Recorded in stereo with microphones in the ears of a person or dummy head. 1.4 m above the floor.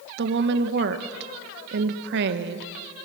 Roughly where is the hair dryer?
I don't hear a hair dryer.